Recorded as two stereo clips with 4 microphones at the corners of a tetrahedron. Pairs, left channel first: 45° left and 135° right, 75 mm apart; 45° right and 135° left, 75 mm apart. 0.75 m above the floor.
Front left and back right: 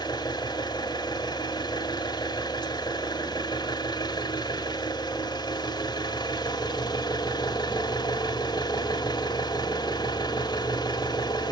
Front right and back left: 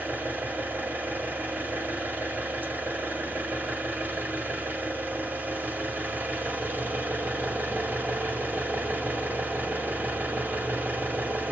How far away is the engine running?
About 2 m.